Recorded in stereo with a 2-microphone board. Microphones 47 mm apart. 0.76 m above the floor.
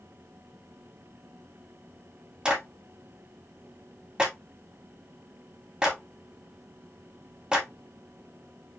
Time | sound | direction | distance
2.5 | a clap | 20° right (ahead or behind) | 1.9 m